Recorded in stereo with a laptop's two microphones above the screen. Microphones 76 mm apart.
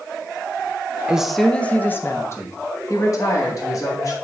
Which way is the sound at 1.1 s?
10° right (ahead or behind).